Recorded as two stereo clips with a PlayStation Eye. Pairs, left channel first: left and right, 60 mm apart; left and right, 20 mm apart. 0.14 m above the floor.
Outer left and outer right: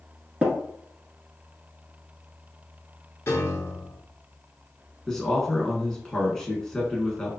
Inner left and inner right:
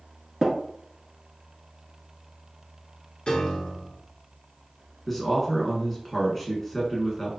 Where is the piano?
50° left (ahead or behind), 0.9 m.